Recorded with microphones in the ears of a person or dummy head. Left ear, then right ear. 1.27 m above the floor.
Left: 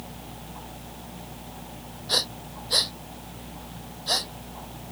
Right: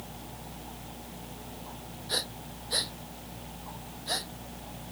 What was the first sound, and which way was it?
Breathing, 20° left (ahead or behind).